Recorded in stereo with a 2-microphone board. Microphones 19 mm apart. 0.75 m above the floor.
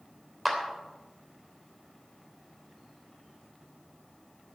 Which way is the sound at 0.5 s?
5° right (ahead or behind).